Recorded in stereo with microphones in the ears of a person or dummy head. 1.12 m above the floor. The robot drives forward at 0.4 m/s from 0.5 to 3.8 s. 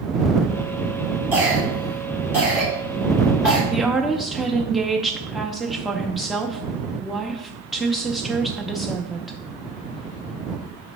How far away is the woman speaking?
About 0.5 m.